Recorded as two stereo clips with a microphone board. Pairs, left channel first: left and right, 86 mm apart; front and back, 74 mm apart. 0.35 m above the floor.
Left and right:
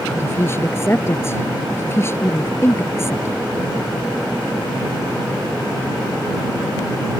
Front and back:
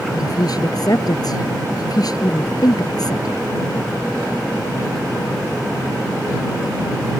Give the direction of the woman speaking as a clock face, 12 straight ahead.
11 o'clock.